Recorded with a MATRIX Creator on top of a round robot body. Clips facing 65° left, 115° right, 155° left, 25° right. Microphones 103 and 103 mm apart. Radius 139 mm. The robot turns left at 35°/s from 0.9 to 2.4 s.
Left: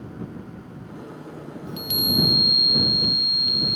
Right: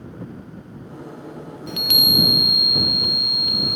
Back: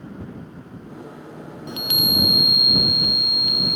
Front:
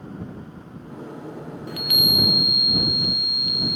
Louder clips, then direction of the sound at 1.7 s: Right 2 dB, back 1 dB; 135° right.